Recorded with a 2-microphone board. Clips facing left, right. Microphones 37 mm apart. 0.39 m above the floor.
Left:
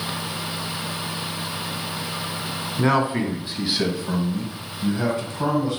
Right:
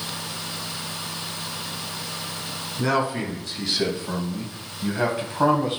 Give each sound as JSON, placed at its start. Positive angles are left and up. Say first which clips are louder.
{"t": 2.8, "sound": "a man speaking", "louder": "left 3 dB", "side_deg": 30, "distance_m": 2.5}